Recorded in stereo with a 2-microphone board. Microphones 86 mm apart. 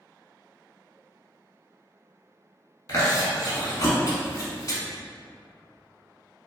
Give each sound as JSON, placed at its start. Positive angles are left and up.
{"t": 2.9, "sound": "chewing", "side_deg": 40, "distance_m": 0.7}